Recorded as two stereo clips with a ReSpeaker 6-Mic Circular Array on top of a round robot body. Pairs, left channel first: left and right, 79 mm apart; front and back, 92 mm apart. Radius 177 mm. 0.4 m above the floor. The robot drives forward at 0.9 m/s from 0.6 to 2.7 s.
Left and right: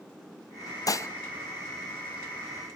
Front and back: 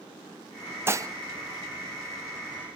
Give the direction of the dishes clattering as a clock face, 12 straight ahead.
8 o'clock.